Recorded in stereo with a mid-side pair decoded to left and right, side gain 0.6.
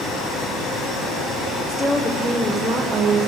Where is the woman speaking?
20° left, 0.9 m; by 3.3 s 35° right, 1.0 m.